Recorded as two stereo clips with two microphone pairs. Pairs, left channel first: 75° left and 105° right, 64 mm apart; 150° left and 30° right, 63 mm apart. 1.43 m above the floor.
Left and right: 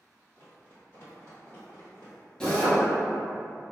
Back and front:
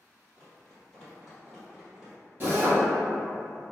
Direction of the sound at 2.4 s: Straight ahead.